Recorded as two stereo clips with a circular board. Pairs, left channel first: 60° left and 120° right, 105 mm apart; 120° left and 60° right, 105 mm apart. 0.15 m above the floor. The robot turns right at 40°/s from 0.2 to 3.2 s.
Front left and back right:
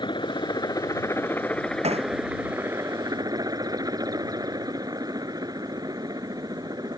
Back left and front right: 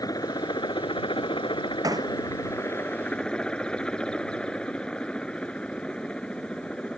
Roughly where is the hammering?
Behind right.